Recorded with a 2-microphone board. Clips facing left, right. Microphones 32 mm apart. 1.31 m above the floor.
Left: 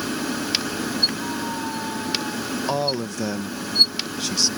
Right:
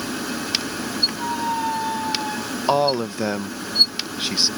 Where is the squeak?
35° right (ahead or behind).